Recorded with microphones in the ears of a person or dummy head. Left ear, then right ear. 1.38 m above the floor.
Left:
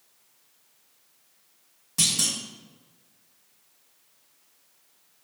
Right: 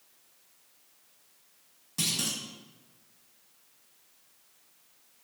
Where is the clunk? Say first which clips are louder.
Left 6 dB; 15° left (ahead or behind), 2 m.